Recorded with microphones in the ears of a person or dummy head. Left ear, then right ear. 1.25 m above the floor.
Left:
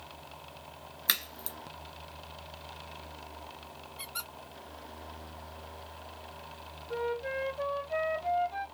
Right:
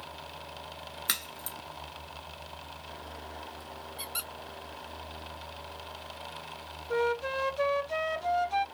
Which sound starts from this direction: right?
A flute, at 6.9 s.